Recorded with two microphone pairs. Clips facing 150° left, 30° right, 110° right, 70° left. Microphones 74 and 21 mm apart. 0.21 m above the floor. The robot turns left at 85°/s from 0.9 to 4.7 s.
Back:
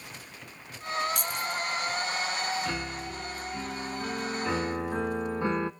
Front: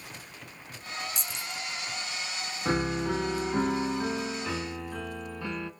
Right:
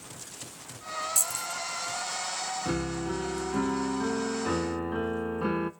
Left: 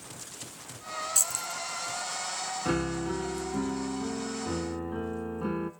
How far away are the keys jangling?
About 2.0 m.